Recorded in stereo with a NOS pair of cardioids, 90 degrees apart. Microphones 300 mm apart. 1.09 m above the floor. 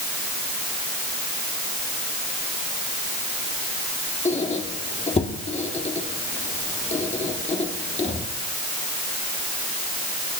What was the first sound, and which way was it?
A squeak, 20° left.